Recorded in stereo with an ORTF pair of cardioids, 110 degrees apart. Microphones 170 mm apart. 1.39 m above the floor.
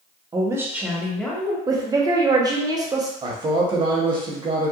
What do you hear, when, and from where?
0.3 s a woman speaking: 25° right, 0.8 m; by 1.6 s 10° left, 1.1 m
1.7 s a woman speaking: 20° right, 0.8 m
3.2 s a man speaking: 30° right, 0.9 m